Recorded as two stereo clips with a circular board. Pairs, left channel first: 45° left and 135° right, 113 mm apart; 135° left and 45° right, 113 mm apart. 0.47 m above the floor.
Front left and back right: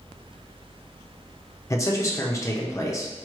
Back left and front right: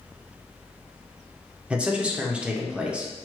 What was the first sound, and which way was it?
A man speaking, 25° left.